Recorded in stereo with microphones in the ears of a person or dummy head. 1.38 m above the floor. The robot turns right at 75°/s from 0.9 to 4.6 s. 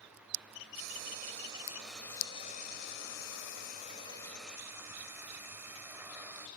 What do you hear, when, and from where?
0.7 s frying: 80° right, 2.5 m; by 6.5 s 165° right, 2.5 m